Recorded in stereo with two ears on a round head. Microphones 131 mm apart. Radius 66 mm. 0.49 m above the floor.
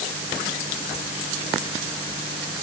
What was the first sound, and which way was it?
Only background noise.